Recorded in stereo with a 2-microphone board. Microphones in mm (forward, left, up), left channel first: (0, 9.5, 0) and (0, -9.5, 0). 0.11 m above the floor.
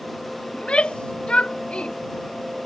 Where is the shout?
85° left.